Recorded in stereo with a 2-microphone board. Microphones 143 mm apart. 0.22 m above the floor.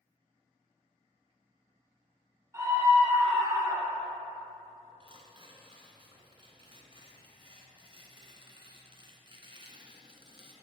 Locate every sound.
2.5 s a scream: 20° right (ahead or behind), 2 m
5.0 s tearing paper: 35° right (ahead or behind), 1.1 m